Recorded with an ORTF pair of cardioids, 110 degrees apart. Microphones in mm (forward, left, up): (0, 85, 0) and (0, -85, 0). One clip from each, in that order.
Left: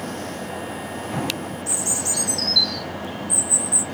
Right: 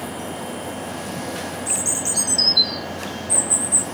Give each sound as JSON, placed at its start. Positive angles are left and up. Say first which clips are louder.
{"t": 1.7, "sound": "a bird", "louder": "left 1 dB", "azimuth_deg": 5, "distance_m": 1.6}